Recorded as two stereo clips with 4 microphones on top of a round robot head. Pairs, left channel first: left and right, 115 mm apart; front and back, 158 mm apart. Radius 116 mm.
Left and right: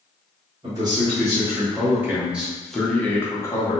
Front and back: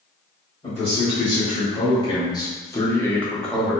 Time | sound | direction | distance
0.6 | a man speaking | 45° right | 1.6 m